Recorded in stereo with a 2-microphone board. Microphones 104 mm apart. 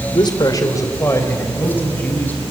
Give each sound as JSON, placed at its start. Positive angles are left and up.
{"t": 0.1, "sound": "a man speaking", "side_deg": 45, "distance_m": 1.7}